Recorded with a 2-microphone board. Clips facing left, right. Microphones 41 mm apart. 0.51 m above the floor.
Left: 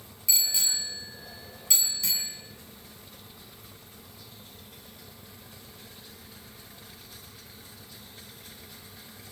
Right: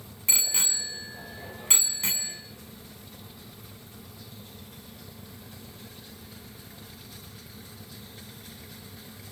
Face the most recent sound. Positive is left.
turn(degrees=-45)  # may be behind; listen again after turning